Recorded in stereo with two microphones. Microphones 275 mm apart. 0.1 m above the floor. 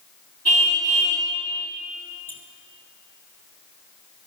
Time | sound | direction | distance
0.5 | a car horn | 75° left (ahead or behind) | 6 m
2.3 | a squeak | 30° left (ahead or behind) | 1.8 m